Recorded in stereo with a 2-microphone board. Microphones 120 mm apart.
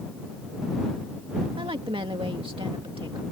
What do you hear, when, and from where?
1.6 s a woman speaking: 50° right (ahead or behind)